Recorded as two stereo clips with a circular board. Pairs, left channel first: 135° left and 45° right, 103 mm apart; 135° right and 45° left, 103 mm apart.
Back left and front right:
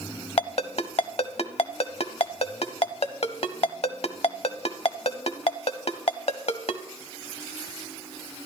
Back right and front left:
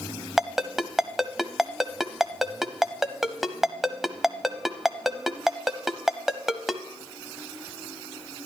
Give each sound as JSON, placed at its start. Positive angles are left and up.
{"t": 0.4, "sound": "a ringtone", "azimuth_deg": 130, "distance_m": 0.7}